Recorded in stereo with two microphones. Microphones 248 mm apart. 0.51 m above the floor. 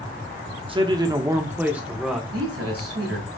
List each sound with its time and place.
0.7 s a man speaking: 20° right (ahead or behind), 0.8 m; by 2.2 s centre (ahead or behind), 1.1 m
2.3 s a man speaking: 65° right (ahead or behind), 3 m